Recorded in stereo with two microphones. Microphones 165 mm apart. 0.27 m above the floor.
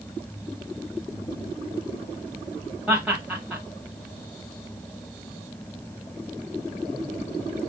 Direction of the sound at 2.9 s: 10° right (ahead or behind).